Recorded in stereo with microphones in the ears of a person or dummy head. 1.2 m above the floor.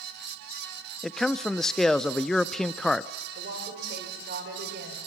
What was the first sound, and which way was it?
A man speaking, centre (ahead or behind).